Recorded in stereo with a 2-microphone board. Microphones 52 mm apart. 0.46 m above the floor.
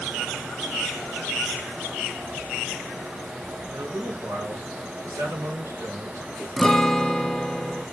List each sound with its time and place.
3.7 s a man speaking: 80° right, 6 m; by 6.5 s 65° right (ahead or behind), 6 m
6.6 s a guitar: 10° left (ahead or behind), 0.7 m